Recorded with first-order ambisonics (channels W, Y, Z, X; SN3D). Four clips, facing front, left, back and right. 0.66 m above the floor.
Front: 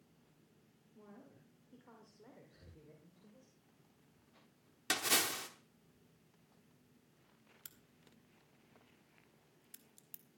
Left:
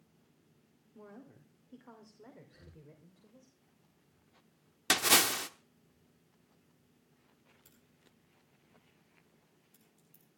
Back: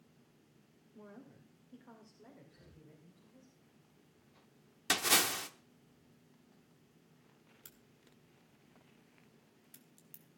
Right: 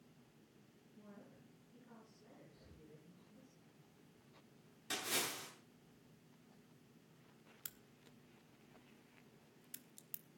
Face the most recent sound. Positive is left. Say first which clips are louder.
# right 6 dB, front 3 dB
turn(degrees=-75)